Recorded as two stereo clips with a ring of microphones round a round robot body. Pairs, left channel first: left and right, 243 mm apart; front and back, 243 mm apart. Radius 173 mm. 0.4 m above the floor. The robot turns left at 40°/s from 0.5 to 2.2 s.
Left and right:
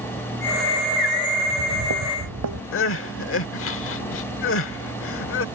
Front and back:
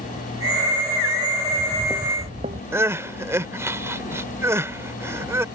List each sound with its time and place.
1.4 s footsteps: 50° right; by 2.6 s 110° right
2.7 s crying: 100° left